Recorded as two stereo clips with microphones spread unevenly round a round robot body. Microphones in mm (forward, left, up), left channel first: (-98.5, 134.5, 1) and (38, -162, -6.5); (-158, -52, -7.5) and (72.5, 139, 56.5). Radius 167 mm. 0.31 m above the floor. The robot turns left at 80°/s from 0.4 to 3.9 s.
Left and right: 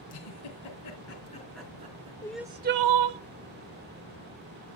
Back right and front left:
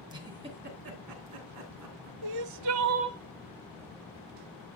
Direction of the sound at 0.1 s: 120° left.